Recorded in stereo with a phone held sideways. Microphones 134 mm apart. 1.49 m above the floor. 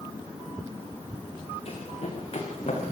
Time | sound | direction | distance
1.6 | running footsteps | 50° left (ahead or behind) | 7 m